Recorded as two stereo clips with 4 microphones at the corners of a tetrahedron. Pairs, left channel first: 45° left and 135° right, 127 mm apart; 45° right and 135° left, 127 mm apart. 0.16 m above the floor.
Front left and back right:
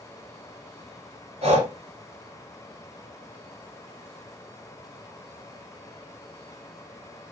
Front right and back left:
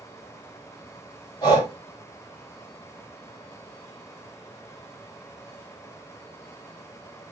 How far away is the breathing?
About 1.0 m.